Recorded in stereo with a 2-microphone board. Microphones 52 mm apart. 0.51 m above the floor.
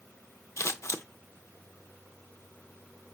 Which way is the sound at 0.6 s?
55° left (ahead or behind).